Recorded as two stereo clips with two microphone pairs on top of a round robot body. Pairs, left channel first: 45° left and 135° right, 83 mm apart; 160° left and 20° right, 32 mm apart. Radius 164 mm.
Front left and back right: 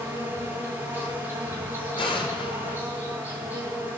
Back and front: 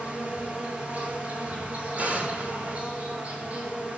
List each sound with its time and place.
0.0 s an insect: 70° right, 6.5 m
2.0 s an explosion: 30° left, 6.5 m